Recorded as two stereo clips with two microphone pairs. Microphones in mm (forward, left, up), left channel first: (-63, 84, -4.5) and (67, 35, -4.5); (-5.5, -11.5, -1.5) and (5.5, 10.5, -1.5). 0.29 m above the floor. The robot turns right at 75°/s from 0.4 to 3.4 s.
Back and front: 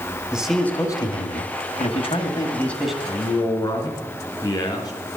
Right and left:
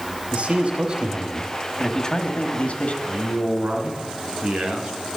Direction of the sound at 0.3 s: 65° left.